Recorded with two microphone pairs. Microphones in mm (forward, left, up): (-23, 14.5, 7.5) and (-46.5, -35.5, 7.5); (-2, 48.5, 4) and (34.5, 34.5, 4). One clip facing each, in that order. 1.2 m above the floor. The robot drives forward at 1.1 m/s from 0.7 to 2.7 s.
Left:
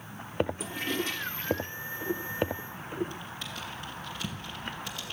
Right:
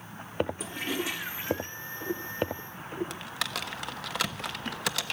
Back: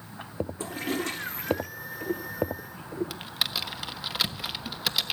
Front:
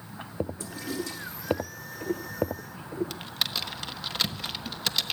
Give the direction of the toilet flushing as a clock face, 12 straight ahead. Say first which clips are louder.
Even, back 4 dB; 7 o'clock.